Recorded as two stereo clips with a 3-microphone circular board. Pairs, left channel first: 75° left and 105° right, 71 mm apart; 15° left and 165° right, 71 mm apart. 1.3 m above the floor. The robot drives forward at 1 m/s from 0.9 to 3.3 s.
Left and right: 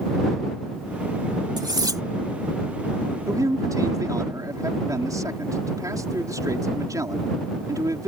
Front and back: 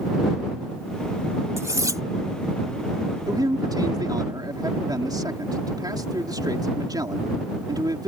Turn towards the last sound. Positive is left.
turn(degrees=-140)